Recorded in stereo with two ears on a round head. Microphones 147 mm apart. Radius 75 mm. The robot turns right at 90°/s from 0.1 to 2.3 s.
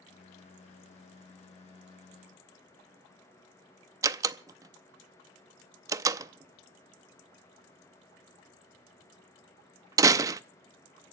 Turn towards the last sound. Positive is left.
turn(degrees=-20)  # may be behind; listen again after turning